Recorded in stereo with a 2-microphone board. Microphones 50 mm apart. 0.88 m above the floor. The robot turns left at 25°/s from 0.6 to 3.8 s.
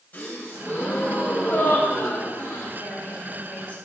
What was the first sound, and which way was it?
A gasp, 150° left.